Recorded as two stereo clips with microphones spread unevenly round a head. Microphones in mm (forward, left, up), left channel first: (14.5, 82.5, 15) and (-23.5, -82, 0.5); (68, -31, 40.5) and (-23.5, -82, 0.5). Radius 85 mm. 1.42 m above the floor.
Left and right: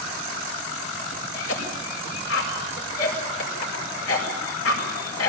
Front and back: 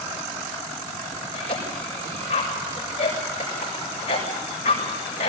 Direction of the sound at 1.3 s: 85° left.